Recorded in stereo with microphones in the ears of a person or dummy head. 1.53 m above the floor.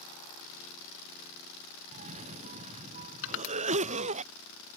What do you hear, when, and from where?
1.9 s a cough: 35° right (ahead or behind)
3.2 s crushing: 80° left